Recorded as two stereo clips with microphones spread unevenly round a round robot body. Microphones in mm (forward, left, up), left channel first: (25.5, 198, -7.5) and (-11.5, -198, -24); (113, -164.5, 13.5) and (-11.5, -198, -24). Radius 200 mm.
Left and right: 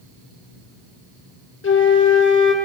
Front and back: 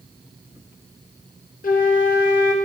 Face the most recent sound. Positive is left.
turn(degrees=25)